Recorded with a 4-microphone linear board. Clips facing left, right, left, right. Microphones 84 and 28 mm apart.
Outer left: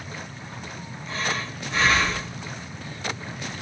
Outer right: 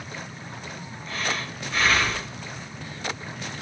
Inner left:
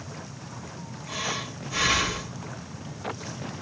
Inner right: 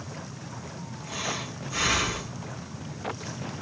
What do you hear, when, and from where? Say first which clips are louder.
1.1 s breathing: outer left 1 dB, inner left 2 dB; 25° left (ahead or behind), 1.6 m